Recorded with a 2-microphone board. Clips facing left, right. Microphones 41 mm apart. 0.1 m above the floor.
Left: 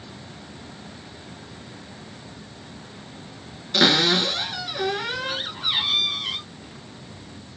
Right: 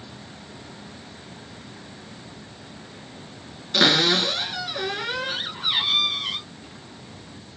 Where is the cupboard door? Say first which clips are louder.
Even; 5° right (ahead or behind), 0.7 m.